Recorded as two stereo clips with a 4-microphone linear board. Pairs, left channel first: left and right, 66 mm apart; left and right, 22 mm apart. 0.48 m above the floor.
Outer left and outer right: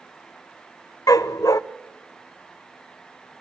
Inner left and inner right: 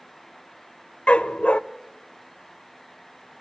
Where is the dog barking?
80° left, 0.6 m.